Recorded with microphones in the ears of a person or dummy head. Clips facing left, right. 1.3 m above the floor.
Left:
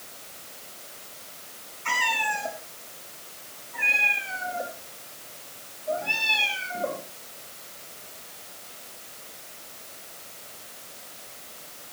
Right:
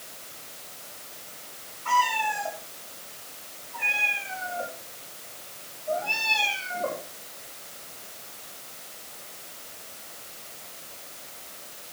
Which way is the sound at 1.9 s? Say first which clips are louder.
Right 4 dB; 35° left (ahead or behind).